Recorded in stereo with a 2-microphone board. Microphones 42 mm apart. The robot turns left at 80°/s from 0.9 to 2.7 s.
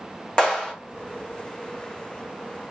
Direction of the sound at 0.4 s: 15° left (ahead or behind).